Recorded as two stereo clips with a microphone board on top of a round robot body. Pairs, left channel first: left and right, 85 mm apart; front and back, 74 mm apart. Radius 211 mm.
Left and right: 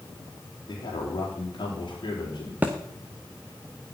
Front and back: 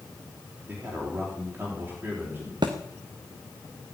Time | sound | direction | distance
0.7 | a man speaking | 120° left | 4.5 m
2.6 | a thud | 160° right | 0.5 m